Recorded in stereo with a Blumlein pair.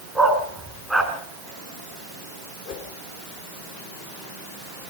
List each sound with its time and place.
0.1 s a dog barking: 5° right, 3.5 m
2.6 s a whoosh: 35° left, 4 m